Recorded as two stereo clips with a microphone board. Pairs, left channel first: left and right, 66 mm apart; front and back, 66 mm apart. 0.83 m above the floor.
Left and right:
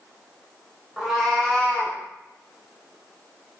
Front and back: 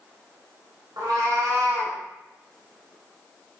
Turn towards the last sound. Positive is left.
turn(degrees=135)